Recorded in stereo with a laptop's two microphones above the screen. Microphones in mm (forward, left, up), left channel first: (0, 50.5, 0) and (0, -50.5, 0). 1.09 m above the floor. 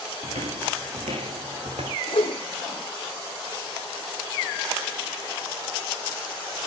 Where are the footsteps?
75° right (ahead or behind), 4 m.